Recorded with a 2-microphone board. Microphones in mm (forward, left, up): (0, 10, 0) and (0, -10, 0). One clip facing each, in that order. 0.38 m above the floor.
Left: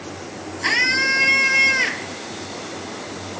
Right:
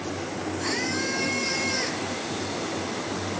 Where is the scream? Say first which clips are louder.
Left 11 dB; 60° left (ahead or behind).